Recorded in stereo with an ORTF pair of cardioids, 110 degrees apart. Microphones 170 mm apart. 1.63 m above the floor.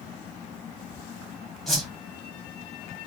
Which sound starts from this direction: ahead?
A whoosh, at 1.7 s.